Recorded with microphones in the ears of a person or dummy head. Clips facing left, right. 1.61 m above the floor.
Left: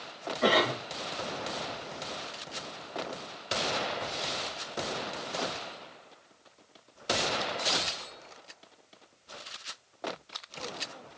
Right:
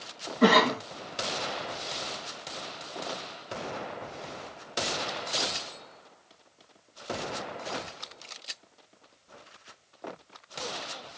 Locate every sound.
0.4 s a cough: 70° right (ahead or behind), 1.5 m